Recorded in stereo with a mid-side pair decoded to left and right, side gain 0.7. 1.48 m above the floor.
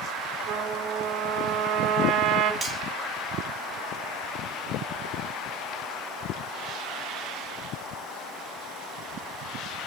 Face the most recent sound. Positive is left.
turn(degrees=-20)